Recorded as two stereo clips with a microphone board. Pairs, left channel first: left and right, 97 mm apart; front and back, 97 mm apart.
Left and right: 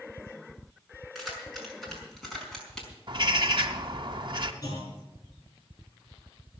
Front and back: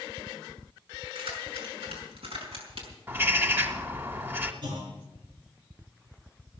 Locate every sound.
1.1 s keys jangling: straight behind, 6 m; by 2.9 s 175° left, 4.5 m
3.1 s a bird: 115° right, 1.3 m
4.6 s a clunk: 145° left, 6 m